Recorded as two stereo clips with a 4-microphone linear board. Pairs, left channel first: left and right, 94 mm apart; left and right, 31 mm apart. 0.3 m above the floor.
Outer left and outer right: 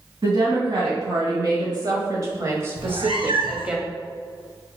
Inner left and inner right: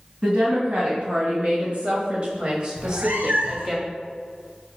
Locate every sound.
0.2 s a woman speaking: 50° right (ahead or behind), 1.8 m; by 3.8 s 10° right (ahead or behind), 1.3 m
2.8 s a cat meowing: 85° right, 1.1 m